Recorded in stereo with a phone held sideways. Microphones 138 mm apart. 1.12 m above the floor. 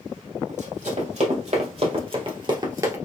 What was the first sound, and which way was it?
Running footsteps, 65° right (ahead or behind).